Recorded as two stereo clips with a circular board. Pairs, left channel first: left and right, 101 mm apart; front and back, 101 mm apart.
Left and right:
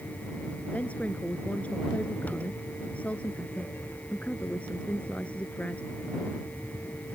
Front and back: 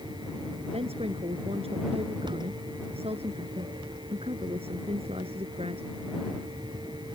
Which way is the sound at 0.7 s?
165° left.